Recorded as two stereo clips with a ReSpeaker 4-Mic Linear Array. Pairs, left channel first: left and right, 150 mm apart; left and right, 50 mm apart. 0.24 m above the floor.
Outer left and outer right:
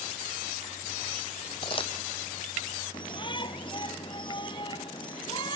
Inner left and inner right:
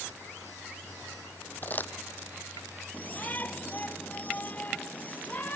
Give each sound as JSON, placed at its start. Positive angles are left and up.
{"t": 1.6, "sound": "crumpling", "side_deg": 35}
{"t": 2.9, "sound": "a shout", "side_deg": 35}